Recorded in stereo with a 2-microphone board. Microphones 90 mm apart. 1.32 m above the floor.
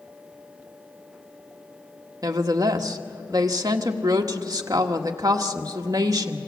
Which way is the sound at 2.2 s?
45° right (ahead or behind).